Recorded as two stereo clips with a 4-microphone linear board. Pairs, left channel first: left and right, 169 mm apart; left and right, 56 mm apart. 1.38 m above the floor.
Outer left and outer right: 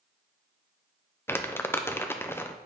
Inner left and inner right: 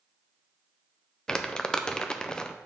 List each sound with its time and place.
1.3 s crumpling: 15° left (ahead or behind), 0.5 m